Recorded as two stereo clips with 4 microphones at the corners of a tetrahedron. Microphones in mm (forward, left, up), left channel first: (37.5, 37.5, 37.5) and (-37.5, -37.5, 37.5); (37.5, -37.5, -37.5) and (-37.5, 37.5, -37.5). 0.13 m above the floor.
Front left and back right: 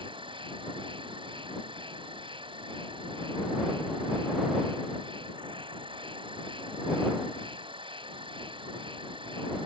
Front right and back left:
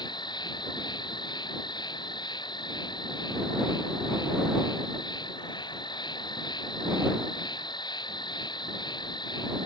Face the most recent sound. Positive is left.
turn(degrees=-95)